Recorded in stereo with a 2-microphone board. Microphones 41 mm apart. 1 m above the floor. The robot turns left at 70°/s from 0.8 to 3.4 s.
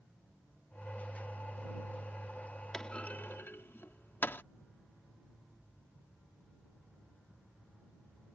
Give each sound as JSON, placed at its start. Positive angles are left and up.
{"t": 2.7, "sound": "a clunk", "side_deg": 15}